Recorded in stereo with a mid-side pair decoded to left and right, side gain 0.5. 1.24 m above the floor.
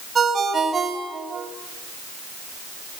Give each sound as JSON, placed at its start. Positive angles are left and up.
{"t": 0.1, "sound": "a ringtone", "azimuth_deg": -30, "distance_m": 4.5}